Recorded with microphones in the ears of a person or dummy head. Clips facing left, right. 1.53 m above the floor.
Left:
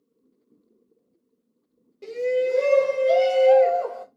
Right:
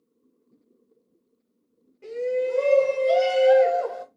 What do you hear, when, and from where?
2.0 s a shout: 50° left (ahead or behind), 0.8 m; by 4.0 s 25° right (ahead or behind), 1.2 m